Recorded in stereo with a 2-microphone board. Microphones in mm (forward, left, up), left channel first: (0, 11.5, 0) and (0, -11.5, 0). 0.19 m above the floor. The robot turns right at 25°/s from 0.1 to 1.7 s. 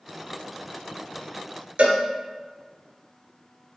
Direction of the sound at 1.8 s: 70° right (ahead or behind).